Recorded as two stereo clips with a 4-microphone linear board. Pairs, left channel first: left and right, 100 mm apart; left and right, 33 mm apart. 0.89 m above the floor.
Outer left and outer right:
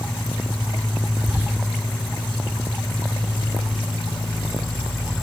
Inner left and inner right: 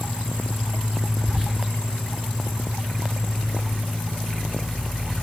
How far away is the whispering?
About 0.7 m.